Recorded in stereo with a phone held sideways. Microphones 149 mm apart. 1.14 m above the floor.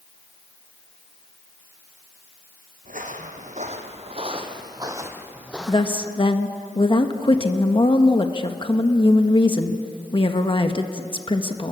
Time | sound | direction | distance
2.9 | footsteps | 65° right (ahead or behind) | 2.5 m
5.7 | a woman speaking | 35° left (ahead or behind) | 1.3 m